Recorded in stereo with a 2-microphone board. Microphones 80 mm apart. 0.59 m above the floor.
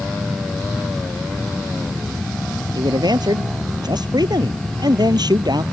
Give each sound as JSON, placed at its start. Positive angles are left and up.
{"t": 2.8, "sound": "a man speaking", "side_deg": -60}